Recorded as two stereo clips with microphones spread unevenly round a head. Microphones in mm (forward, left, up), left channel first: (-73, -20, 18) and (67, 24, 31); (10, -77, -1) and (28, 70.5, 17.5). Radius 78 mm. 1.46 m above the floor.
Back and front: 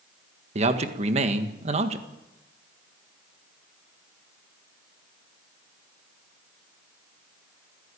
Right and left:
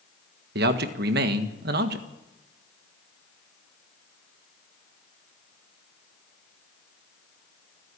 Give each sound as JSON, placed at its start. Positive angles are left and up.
{"t": 0.6, "sound": "a man speaking", "azimuth_deg": 65, "distance_m": 1.7}